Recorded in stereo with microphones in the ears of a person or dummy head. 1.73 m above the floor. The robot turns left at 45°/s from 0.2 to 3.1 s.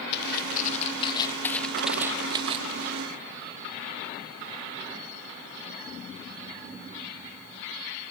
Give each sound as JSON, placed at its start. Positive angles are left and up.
{"t": 0.1, "sound": "footsteps", "side_deg": 75}